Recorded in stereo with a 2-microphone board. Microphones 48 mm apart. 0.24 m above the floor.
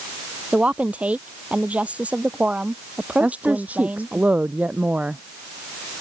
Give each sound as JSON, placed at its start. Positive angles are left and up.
{"t": 0.5, "sound": "a woman speaking", "side_deg": -30}
{"t": 3.2, "sound": "a woman speaking", "side_deg": -30}